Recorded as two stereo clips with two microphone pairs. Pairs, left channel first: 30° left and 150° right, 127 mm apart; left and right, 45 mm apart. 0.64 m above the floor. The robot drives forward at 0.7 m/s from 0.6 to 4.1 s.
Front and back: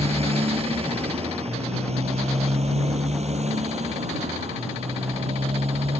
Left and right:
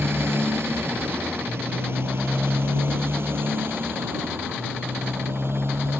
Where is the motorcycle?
115° right.